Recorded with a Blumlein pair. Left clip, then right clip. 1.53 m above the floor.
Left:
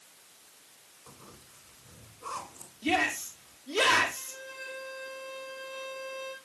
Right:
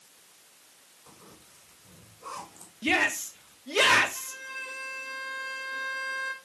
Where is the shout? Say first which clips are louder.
Right 3 dB; 25° right, 3.5 m.